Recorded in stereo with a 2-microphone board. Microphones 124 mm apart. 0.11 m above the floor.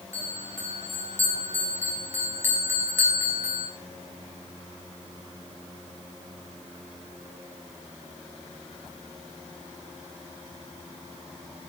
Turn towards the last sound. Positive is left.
turn(degrees=-20)  # may be behind; listen again after turning